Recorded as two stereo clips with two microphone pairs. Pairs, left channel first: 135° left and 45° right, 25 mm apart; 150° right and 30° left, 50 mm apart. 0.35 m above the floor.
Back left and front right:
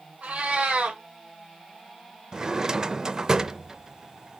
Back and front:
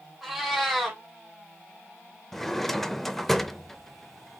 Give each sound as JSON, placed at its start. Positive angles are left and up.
{"t": 0.2, "sound": "a cat meowing", "azimuth_deg": -55, "distance_m": 2.5}
{"t": 2.3, "sound": "a drawer", "azimuth_deg": -65, "distance_m": 0.5}